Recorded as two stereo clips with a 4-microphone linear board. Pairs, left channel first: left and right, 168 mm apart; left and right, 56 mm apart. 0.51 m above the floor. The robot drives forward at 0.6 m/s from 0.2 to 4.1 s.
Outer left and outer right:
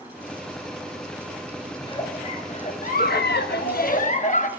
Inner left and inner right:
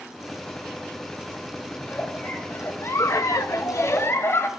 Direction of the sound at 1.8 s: 25° left (ahead or behind).